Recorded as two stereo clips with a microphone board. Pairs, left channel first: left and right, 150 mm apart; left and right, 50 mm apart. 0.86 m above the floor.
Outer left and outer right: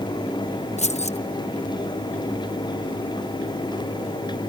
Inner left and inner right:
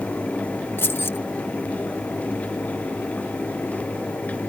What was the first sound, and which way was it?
Keys jangling, 50° left (ahead or behind).